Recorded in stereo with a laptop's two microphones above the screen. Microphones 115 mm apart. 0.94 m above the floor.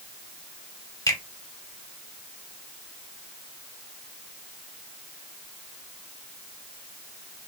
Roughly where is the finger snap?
Left.